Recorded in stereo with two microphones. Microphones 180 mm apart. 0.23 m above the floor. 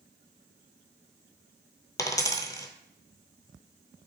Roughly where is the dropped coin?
Centre.